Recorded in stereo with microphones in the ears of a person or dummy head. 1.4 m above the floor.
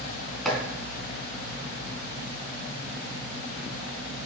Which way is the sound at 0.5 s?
Centre (ahead or behind).